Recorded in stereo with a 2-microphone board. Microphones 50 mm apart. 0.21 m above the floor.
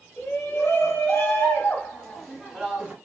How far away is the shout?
About 2.5 m.